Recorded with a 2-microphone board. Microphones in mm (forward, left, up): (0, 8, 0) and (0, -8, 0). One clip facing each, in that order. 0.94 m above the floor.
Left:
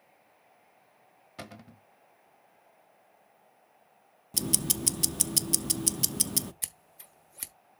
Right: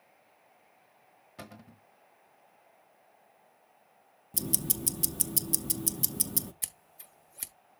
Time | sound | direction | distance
1.4 | a cupboard door | 30° left (ahead or behind) | 1.2 m
4.3 | ticking | 40° left (ahead or behind) | 0.6 m
6.6 | scissors | 10° left (ahead or behind) | 1.1 m